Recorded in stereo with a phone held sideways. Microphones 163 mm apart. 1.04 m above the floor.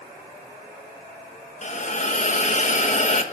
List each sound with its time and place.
1.6 s a hiss: 45° left (ahead or behind), 1.5 m